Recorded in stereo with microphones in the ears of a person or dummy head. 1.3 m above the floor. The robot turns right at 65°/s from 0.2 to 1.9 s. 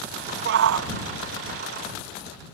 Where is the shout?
120° right; by 0.9 s 90° right.